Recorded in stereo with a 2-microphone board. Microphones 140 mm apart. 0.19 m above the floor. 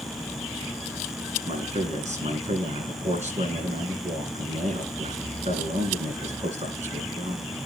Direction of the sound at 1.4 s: 55° right (ahead or behind).